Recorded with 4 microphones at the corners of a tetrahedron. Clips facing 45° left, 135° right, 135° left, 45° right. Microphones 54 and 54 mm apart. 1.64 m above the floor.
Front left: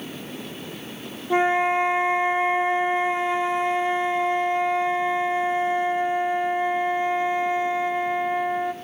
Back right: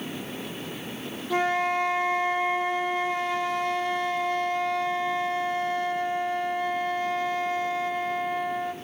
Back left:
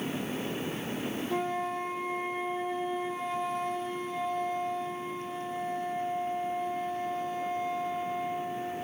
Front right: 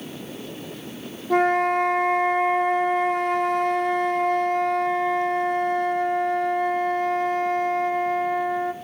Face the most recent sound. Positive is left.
turn(degrees=-25)